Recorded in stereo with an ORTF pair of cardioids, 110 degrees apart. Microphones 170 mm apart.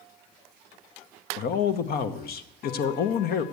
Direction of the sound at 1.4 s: 65° left.